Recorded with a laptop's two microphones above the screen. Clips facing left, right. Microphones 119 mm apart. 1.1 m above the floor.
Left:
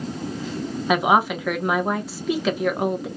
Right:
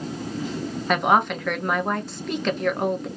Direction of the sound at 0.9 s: 5° left (ahead or behind).